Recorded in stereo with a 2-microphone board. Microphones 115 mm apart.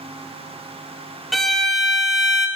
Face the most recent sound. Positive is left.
turn(degrees=0)  # may be behind; listen again after turning